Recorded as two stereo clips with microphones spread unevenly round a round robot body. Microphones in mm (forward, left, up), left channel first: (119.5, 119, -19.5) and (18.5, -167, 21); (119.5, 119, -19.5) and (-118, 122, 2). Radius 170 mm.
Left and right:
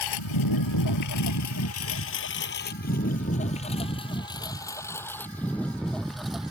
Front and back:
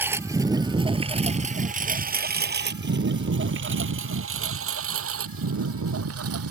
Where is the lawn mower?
100° left; by 6.5 s 165° left.